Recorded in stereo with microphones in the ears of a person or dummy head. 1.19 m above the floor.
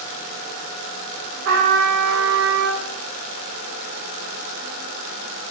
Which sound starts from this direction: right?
A trumpet, at 1.4 s.